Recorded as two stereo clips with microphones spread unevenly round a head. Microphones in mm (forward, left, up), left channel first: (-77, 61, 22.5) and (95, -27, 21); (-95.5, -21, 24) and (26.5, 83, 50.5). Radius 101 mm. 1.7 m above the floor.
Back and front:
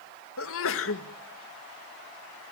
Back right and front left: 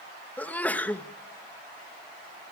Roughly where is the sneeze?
Behind left.